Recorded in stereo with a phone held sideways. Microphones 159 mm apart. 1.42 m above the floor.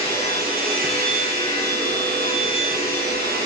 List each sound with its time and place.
0.0 s a machine running: 75° right (ahead or behind), 0.8 m